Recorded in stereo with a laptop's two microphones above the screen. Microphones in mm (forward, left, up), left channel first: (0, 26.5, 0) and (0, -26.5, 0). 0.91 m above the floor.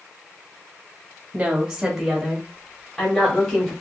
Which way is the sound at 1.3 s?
25° right (ahead or behind).